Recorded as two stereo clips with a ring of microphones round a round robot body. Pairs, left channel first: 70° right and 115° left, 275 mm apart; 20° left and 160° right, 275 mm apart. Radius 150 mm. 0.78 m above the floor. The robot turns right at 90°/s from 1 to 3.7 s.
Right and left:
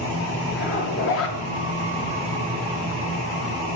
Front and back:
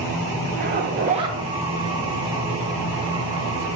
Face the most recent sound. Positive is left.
turn(degrees=135)